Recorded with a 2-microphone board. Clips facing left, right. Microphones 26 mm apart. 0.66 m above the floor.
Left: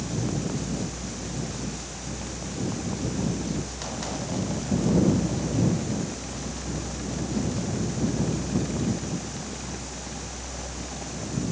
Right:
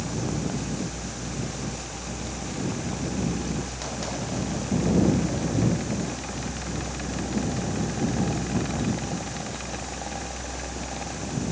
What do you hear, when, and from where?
Only background noise.